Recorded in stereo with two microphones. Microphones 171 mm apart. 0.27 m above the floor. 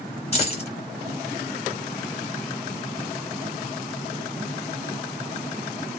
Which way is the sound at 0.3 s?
35° left (ahead or behind).